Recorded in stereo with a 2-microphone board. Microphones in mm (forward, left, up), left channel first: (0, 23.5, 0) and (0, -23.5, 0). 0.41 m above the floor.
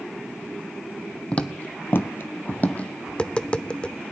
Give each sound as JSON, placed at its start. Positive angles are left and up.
{"t": 1.3, "sound": "footsteps", "side_deg": 30, "distance_m": 0.9}
{"t": 3.1, "sound": "tapping", "side_deg": 25, "distance_m": 0.5}